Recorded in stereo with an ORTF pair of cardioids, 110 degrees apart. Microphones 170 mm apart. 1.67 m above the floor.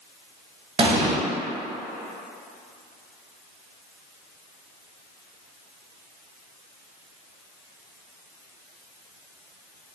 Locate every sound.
0.8 s an explosion: 35° right, 0.7 m